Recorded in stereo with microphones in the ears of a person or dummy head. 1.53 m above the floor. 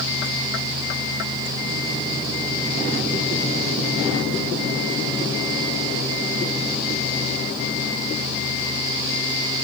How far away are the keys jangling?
I don't hear keys jangling.